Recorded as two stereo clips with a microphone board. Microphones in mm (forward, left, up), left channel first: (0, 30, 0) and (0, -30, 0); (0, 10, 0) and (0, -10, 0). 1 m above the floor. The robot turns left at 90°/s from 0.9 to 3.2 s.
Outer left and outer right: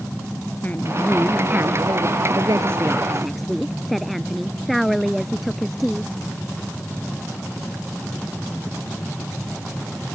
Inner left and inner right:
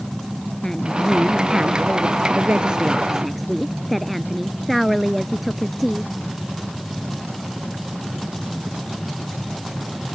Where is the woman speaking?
30° left; by 6.1 s straight behind.